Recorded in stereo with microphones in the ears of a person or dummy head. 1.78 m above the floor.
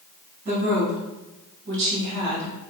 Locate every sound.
0.5 s a woman speaking: 50° right (ahead or behind), 1.4 m; by 2.7 s 35° right (ahead or behind), 1.0 m